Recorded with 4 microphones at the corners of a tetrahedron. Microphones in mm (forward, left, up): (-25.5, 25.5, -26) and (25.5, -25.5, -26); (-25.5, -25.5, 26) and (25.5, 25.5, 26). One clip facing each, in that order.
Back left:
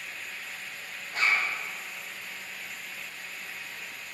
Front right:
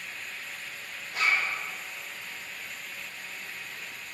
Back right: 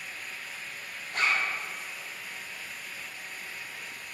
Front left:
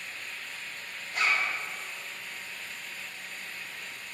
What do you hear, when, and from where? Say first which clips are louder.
1.1 s a zipper: even, even; 175° right, 3 m